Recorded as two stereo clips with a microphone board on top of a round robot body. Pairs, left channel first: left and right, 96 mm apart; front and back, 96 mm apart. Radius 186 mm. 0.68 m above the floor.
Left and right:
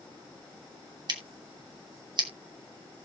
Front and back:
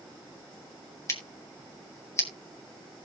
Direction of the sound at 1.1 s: 55° right.